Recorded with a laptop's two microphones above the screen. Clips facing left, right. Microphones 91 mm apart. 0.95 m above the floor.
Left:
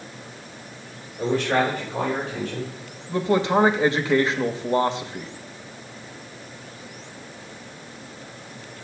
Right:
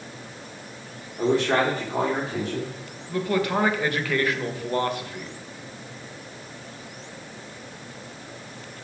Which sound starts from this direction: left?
A man speaking, at 3.1 s.